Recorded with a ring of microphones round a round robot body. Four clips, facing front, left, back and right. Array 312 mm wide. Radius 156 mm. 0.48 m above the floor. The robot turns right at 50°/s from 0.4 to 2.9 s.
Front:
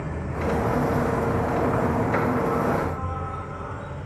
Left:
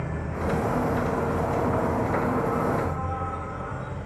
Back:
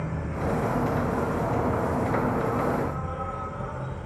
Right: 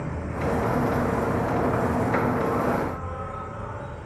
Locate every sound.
0.0 s an insect: 65° right, 3 m; by 4.1 s 60° left, 3 m